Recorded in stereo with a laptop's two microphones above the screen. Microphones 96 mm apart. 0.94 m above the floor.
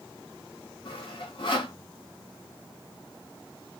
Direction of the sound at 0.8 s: 55° left (ahead or behind).